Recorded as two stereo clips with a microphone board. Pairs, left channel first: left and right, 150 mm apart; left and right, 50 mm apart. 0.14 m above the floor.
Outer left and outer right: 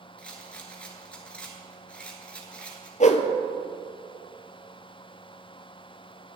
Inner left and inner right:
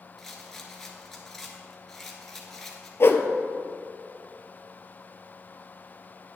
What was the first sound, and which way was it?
A rattle, 10° left (ahead or behind).